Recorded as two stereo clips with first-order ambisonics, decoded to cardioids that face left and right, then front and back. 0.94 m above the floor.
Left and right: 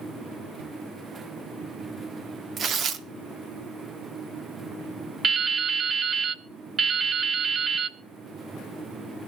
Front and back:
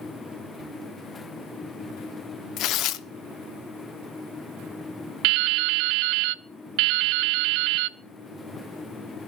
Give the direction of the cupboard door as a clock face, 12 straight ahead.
3 o'clock.